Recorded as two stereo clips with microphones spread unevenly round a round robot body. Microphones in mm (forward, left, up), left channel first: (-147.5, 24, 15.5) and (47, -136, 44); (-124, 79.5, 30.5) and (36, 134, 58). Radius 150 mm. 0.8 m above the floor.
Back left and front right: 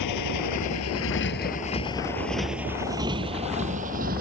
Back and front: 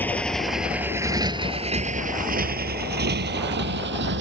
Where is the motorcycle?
120° left; by 4.2 s 25° left.